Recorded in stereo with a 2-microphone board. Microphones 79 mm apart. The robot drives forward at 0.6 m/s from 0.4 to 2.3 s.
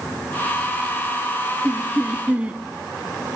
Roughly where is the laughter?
Centre.